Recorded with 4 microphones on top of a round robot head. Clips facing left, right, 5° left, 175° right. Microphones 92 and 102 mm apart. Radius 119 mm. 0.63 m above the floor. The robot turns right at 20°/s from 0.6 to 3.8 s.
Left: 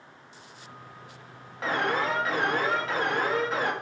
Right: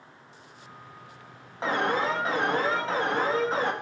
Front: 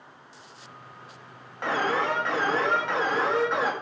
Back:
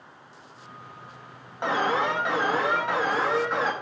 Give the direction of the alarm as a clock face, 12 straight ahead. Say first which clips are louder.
Right 1 dB, back 1 dB; 4 o'clock.